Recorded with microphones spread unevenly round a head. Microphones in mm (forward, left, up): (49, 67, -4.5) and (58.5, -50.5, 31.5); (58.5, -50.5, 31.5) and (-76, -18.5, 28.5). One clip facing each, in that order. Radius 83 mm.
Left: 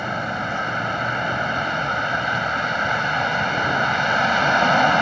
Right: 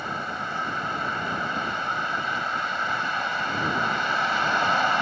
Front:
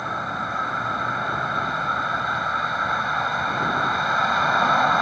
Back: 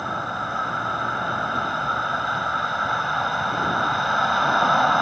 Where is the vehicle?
80° left.